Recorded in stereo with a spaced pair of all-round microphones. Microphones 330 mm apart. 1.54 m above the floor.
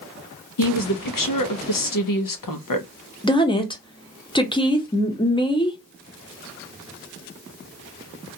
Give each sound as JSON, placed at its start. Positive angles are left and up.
{"t": 0.6, "sound": "a woman speaking", "side_deg": 75, "distance_m": 0.6}
{"t": 3.2, "sound": "a woman speaking", "side_deg": 15, "distance_m": 0.6}